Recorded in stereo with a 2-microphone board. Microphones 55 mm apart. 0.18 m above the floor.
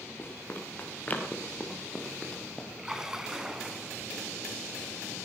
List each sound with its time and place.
0.2 s running footsteps: 40° left (ahead or behind), 5.5 m; by 2.7 s 5° left (ahead or behind), 4 m
2.8 s a splash: 10° right (ahead or behind), 1.5 m